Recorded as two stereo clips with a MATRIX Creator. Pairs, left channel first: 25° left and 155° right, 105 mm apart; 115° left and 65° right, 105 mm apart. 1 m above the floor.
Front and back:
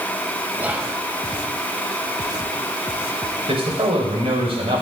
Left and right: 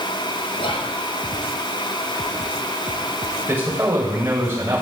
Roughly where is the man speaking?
Behind right.